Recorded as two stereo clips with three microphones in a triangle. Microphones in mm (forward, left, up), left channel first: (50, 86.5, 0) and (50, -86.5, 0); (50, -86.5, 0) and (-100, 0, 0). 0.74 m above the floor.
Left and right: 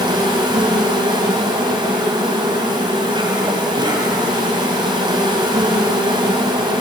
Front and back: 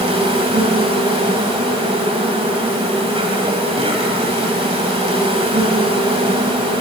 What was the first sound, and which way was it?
An insect, 150° right.